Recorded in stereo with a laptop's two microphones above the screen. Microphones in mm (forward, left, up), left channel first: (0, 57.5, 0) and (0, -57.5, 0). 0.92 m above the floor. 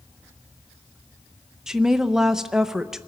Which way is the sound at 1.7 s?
5° right (ahead or behind).